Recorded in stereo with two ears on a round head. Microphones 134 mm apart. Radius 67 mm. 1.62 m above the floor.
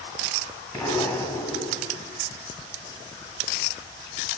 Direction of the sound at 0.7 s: 15° left (ahead or behind).